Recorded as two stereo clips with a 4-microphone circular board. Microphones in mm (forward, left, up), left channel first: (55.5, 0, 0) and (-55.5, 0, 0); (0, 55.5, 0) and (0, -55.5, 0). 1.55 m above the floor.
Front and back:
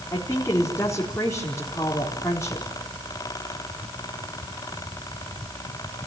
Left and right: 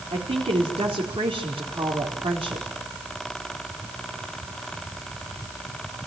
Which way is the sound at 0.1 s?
65° right.